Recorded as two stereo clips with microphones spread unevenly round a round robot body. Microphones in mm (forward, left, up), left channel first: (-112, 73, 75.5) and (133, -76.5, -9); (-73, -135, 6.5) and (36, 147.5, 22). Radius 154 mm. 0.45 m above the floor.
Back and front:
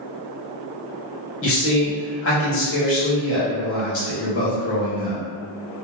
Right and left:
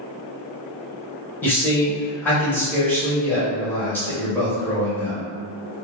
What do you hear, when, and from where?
1.4 s a man speaking: 175° left, 1.2 m